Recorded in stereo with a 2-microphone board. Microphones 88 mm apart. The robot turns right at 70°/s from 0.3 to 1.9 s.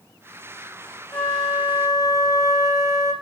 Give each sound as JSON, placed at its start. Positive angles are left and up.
{"t": 1.1, "sound": "a flute", "azimuth_deg": 160, "distance_m": 3.0}